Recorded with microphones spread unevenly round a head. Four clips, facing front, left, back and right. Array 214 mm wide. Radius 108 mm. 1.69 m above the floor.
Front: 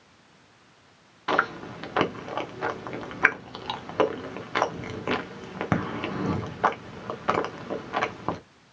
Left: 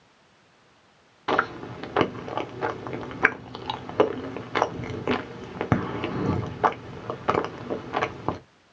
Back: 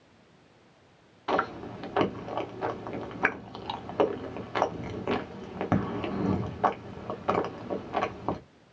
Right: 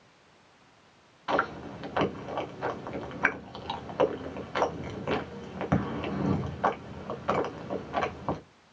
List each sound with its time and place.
1.3 s chewing: 55° left, 1.3 m